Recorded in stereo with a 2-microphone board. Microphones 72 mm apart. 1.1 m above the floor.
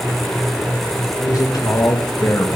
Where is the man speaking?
65° left (ahead or behind), 1.5 m; by 2.5 s 35° left (ahead or behind), 1.8 m.